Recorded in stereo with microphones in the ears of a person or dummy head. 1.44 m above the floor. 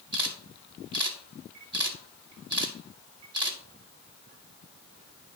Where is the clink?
I don't hear a clink.